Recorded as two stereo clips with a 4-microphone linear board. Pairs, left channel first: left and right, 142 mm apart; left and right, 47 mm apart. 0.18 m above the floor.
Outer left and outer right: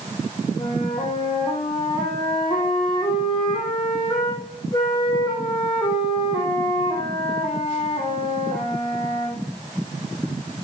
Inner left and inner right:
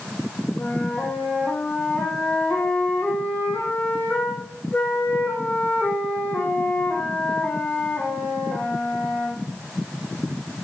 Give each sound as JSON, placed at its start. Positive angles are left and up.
{"t": 0.6, "sound": "a flute", "side_deg": 35, "distance_m": 6.5}